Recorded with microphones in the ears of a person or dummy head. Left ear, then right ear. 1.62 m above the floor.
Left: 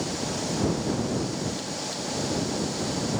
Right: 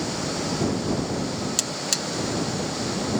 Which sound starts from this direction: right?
A buzzer, at 1.6 s.